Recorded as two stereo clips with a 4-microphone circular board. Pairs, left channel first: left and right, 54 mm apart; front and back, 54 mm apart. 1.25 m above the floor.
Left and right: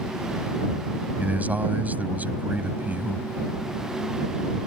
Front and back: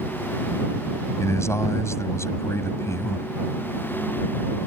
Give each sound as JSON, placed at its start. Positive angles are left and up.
{"t": 1.2, "sound": "a man speaking", "azimuth_deg": -30}